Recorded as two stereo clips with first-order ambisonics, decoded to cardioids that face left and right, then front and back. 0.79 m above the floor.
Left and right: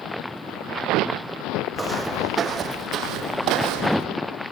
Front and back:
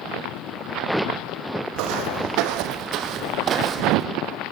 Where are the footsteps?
170° right, 2.5 m; by 4.1 s 105° right, 2 m.